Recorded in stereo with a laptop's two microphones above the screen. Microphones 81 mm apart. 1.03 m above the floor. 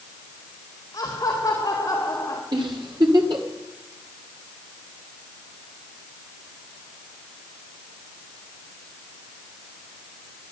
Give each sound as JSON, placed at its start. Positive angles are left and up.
{"t": 0.9, "sound": "laughter", "side_deg": 50, "distance_m": 2.0}
{"t": 2.5, "sound": "a giggle", "side_deg": -70, "distance_m": 2.0}